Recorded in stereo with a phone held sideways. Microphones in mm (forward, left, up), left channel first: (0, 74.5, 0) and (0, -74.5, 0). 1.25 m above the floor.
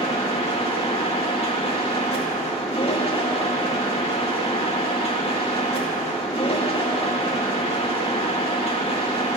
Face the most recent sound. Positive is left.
turn(degrees=40)  # may be behind; listen again after turning